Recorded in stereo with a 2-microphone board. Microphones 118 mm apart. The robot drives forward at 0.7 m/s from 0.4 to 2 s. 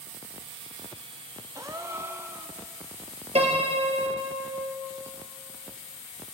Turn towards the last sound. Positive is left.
turn(degrees=-55)  # may be behind; listen again after turning